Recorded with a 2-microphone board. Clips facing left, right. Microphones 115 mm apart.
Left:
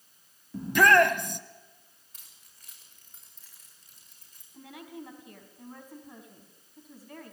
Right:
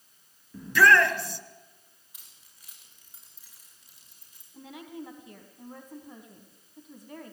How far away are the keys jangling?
About 8 m.